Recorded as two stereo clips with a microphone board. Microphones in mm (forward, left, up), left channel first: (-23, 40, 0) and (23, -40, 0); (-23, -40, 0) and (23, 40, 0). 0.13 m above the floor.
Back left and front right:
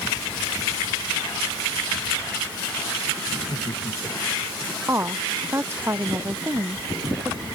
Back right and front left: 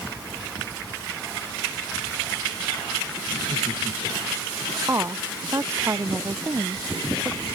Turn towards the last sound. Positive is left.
turn(degrees=0)